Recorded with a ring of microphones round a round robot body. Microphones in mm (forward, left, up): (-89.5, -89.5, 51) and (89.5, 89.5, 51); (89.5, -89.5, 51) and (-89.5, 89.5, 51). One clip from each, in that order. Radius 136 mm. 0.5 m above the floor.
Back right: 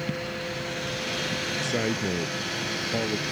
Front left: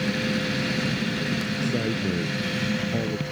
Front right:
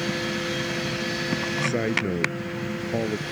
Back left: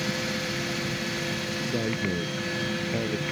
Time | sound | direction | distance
1.6 | a man speaking | 80° right | ?